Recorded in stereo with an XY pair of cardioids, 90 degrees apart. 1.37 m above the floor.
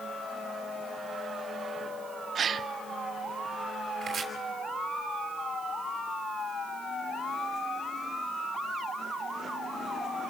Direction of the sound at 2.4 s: 60° right.